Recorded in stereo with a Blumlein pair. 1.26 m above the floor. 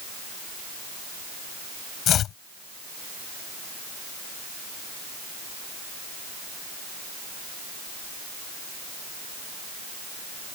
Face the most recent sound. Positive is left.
turn(degrees=30)